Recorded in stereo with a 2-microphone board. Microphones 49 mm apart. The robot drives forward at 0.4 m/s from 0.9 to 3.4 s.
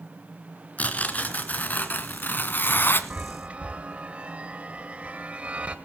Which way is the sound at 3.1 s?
30° right (ahead or behind).